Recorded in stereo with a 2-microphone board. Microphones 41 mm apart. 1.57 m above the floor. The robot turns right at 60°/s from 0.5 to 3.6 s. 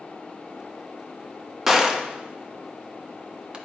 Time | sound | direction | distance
1.7 | a gunshot | 10° right (ahead or behind) | 0.9 m